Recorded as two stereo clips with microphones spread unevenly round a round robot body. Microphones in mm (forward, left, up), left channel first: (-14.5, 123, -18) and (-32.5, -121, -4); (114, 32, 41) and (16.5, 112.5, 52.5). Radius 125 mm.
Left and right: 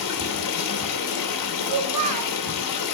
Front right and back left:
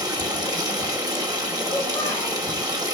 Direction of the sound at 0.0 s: 80° left.